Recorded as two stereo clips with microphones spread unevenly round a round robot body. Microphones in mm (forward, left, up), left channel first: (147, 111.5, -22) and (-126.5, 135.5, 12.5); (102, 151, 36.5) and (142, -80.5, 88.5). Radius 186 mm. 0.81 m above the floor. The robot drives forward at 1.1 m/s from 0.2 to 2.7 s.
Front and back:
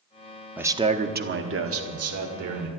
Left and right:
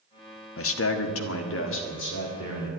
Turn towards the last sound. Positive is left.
turn(degrees=150)